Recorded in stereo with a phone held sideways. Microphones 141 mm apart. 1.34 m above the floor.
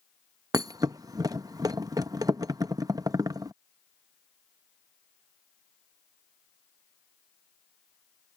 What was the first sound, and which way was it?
A thud, 25° right (ahead or behind).